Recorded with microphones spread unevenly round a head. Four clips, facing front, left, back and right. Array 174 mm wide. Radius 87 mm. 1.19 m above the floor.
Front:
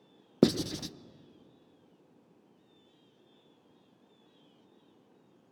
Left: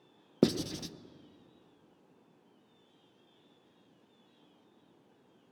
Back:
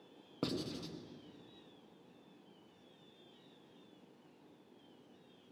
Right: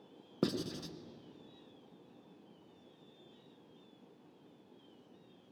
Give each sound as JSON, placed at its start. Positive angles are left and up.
{"t": 0.4, "sound": "writing", "azimuth_deg": 30, "distance_m": 0.7}